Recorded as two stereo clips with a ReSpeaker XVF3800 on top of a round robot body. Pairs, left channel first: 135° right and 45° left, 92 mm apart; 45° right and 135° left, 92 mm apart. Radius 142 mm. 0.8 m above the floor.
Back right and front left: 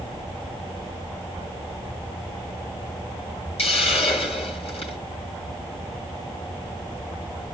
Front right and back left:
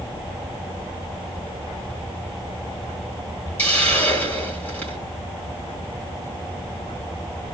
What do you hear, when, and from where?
3.6 s a hiss: 120° right, 4 m